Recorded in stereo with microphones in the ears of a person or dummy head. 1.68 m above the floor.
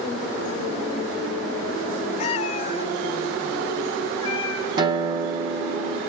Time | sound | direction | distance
2.2 | a cat meowing | 35° left (ahead or behind) | 1.8 m
4.8 | a guitar | 20° right (ahead or behind) | 1.2 m